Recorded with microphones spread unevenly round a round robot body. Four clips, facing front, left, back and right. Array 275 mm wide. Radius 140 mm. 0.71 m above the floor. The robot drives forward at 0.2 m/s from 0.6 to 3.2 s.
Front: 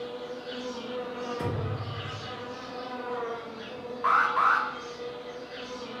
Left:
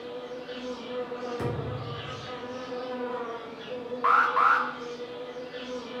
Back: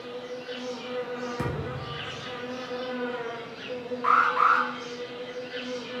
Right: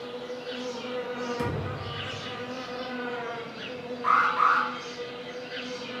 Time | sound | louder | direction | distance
0.0 | an insect | right 1 dB, even | 90° right | 0.9 m
1.4 | a thud | right 1 dB, back 1 dB | 175° right | 1.3 m
4.0 | an alarm | left 1 dB, back 2 dB | 100° left | 0.8 m